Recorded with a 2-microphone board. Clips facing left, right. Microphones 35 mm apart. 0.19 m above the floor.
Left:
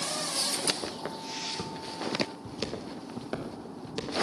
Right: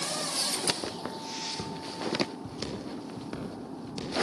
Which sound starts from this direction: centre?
Footsteps, at 0.8 s.